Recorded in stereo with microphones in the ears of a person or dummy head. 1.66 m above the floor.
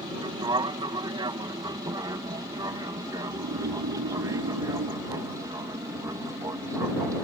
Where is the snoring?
75° right (ahead or behind).